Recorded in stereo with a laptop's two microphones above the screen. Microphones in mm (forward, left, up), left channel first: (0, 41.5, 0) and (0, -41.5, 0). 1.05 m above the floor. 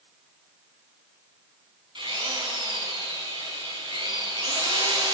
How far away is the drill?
About 5 m.